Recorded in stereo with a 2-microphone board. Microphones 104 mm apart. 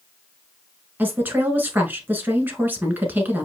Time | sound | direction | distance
1.0 | a woman speaking | 20° right (ahead or behind) | 1.2 m